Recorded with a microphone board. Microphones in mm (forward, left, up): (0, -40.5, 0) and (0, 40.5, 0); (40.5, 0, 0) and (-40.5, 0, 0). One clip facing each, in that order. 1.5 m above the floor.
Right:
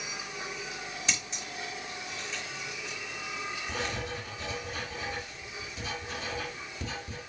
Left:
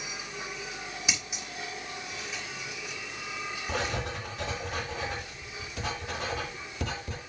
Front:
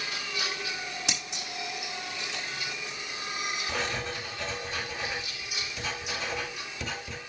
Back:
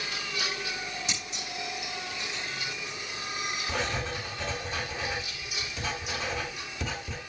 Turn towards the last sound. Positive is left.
turn(degrees=90)